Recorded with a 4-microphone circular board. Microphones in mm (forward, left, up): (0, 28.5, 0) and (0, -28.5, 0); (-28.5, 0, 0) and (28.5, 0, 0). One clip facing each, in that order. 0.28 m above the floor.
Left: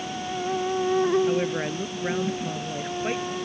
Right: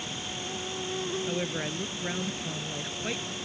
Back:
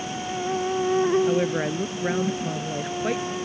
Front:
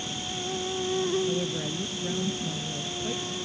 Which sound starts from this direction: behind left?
An insect, at 0.0 s.